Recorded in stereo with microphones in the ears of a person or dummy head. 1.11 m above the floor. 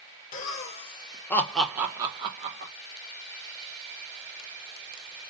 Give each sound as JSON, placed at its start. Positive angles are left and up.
{"t": 0.3, "sound": "laughter", "side_deg": 45, "distance_m": 1.1}